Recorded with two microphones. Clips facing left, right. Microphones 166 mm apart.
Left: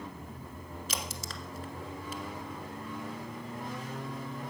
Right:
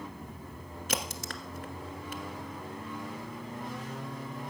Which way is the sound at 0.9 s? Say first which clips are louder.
Right 6 dB; 60° right (ahead or behind).